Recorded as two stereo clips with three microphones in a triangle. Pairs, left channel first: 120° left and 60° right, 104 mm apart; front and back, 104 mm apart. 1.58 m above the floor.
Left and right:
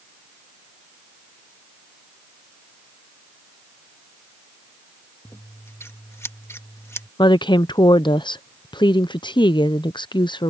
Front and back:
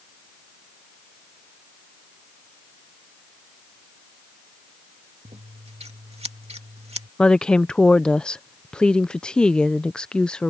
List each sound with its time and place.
5.2 s scissors: 175° right
7.2 s a woman speaking: 80° left